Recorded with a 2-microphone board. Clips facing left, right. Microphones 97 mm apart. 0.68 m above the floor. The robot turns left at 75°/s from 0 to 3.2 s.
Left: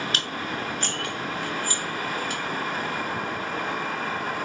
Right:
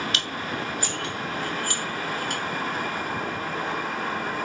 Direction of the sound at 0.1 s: 40° left (ahead or behind).